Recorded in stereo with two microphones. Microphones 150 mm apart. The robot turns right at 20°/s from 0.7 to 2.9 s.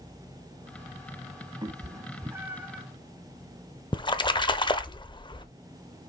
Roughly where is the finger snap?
I don't hear a finger snap.